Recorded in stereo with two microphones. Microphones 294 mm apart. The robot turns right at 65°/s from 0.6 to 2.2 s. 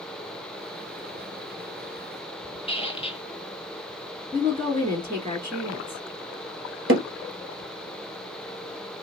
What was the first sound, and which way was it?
A squeak, 20° left (ahead or behind).